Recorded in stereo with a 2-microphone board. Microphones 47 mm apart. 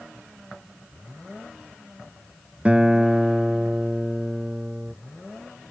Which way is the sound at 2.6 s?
25° right (ahead or behind).